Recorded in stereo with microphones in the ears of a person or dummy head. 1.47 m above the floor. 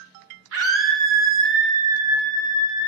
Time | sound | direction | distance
0.5 | a scream | 75° right (ahead or behind) | 1.8 m